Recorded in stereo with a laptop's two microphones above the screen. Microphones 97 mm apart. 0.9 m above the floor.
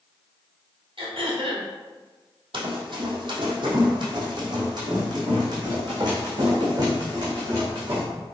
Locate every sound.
1.0 s throat clearing: 65° right (ahead or behind), 2 m
2.5 s running footsteps: 55° right (ahead or behind), 2 m; by 8.0 s 40° right (ahead or behind), 5 m